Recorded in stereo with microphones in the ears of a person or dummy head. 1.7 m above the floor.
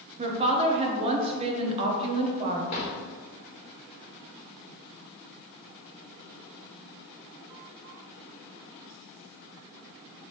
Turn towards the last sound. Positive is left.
turn(degrees=35)  # may be behind; listen again after turning